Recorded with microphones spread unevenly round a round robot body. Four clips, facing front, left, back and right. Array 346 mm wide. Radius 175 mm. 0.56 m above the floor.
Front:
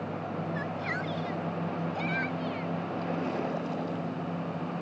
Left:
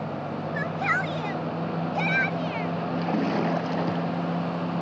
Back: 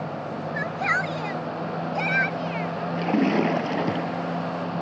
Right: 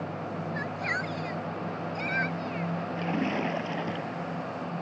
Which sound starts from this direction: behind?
A splash, at 3.0 s.